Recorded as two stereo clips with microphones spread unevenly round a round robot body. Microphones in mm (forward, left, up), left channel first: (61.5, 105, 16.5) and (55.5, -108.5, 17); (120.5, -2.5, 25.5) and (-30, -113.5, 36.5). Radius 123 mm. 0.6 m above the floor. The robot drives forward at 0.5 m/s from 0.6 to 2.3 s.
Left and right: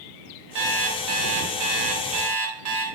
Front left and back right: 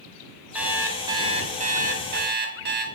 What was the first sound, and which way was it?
An alarm clock, 60° right.